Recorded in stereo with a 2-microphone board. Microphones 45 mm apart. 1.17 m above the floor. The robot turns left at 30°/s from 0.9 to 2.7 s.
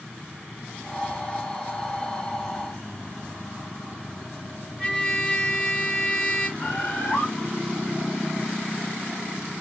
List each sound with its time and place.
4.8 s a trumpet: 15° left (ahead or behind), 1.5 m
6.6 s a bird: 60° left (ahead or behind), 1.6 m